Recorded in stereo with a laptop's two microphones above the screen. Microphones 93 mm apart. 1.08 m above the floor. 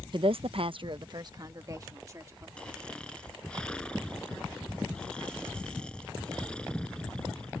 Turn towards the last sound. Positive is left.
turn(degrees=10)  # may be behind; listen again after turning